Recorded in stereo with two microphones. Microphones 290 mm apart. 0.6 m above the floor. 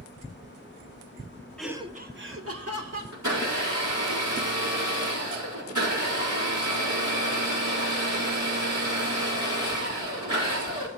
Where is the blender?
85° right, 5 m.